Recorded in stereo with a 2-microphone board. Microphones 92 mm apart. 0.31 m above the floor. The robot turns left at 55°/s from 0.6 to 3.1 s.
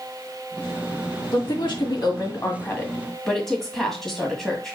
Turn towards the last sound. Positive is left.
turn(degrees=5)